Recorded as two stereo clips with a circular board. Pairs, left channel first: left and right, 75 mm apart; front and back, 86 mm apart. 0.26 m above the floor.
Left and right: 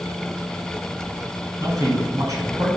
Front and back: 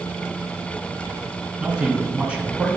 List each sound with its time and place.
1.6 s a man speaking: 105° right, 2.5 m